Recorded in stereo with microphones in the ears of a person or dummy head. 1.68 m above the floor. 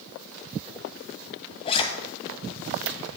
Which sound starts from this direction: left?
A zipper, at 1.6 s.